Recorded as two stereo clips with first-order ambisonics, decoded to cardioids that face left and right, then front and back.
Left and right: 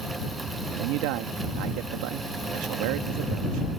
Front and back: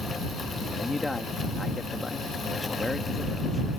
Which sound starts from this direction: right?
A man speaking, at 0.7 s.